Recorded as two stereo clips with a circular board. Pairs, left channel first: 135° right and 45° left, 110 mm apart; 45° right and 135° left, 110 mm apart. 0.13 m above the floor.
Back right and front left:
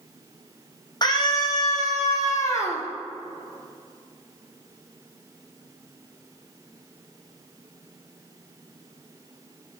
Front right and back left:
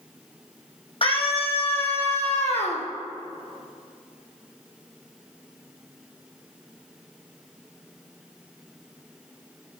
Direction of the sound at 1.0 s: 80° right.